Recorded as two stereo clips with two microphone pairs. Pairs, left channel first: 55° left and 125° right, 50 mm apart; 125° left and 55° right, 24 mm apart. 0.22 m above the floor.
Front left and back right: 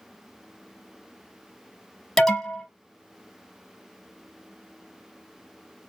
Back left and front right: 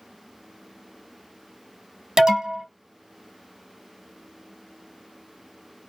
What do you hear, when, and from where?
2.2 s an alarm: 20° right, 0.8 m